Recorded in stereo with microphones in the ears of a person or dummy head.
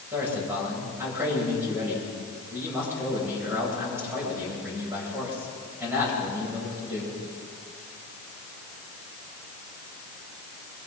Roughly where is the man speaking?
Centre.